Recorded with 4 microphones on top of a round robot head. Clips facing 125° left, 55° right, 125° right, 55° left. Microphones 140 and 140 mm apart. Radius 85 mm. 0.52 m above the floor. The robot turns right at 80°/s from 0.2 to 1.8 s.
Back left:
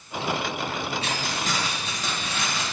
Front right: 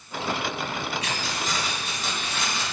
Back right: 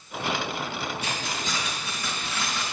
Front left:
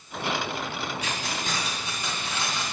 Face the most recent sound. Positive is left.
turn(degrees=125)